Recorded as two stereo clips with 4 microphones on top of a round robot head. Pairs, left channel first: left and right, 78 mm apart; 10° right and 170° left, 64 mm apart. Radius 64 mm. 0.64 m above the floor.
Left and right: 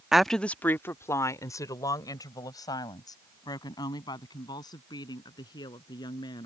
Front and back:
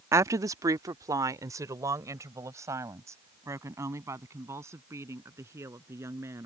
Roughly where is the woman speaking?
Behind.